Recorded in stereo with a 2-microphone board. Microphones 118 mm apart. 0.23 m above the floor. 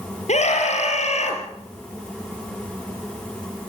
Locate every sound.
0.3 s a scream: 75° left (ahead or behind), 4 m